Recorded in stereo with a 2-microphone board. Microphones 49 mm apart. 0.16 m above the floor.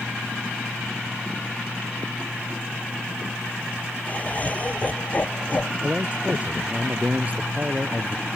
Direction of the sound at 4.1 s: 35° left (ahead or behind).